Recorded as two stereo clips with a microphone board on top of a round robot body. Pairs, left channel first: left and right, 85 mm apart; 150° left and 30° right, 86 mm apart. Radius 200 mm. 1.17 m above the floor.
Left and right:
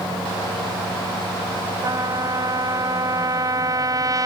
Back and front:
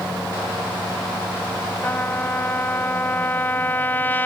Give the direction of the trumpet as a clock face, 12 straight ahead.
5 o'clock.